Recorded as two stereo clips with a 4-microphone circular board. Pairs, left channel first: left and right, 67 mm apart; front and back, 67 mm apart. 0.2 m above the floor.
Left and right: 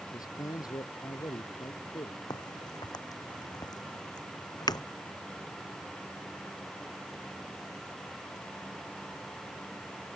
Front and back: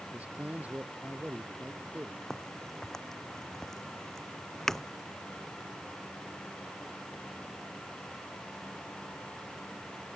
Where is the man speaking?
110° left.